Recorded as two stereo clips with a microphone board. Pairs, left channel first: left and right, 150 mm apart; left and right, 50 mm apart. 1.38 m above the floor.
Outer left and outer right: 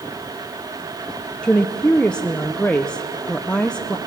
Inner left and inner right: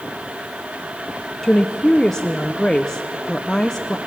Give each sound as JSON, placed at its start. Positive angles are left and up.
{"t": 1.4, "sound": "a woman speaking", "side_deg": 5, "distance_m": 0.6}